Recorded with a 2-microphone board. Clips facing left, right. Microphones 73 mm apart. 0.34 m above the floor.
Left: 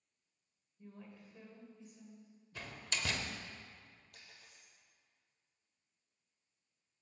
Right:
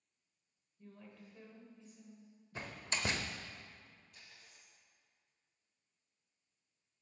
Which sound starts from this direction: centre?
A woman speaking, at 0.8 s.